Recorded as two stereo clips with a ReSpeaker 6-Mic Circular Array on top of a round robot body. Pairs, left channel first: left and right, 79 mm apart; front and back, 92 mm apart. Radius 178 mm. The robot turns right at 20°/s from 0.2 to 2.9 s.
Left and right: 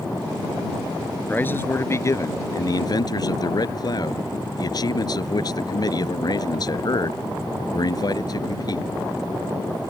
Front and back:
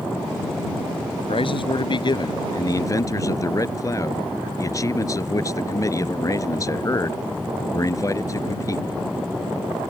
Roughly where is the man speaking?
Ahead.